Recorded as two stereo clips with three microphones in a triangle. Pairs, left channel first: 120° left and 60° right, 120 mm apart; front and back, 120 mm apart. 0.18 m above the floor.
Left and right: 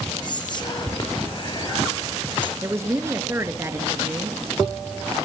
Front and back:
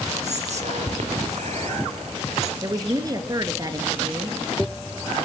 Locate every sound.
0.2 s whispering: 170° left, 4 m
2.6 s a woman speaking: 125° right, 2.5 m